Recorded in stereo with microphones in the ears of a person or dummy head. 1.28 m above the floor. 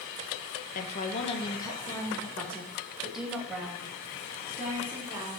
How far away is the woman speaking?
About 1.3 m.